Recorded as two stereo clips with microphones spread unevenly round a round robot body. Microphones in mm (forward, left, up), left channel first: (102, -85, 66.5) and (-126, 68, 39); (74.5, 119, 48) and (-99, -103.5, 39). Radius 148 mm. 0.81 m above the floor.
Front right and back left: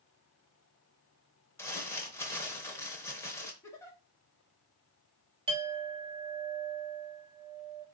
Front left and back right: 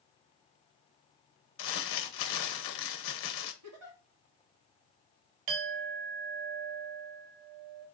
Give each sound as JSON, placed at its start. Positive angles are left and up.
{"t": 1.6, "sound": "crumpling", "azimuth_deg": 40, "distance_m": 0.7}
{"t": 3.6, "sound": "a giggle", "azimuth_deg": -115, "distance_m": 1.7}
{"t": 5.5, "sound": "a clink", "azimuth_deg": -140, "distance_m": 1.0}